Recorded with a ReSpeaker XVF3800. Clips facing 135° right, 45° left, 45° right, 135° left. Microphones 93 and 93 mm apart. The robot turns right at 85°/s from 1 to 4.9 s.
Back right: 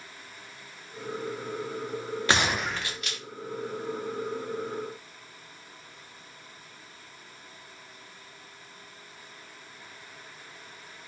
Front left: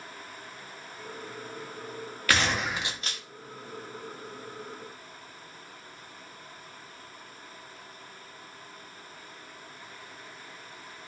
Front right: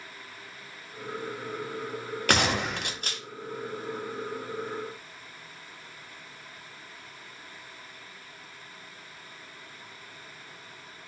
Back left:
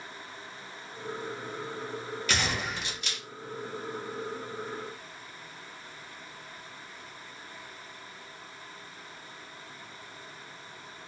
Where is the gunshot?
70° right, 0.6 m; by 3.2 s 5° left, 0.6 m.